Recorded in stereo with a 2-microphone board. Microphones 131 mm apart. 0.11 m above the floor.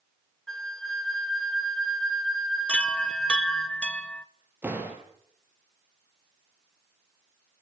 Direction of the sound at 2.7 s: 5° left (ahead or behind).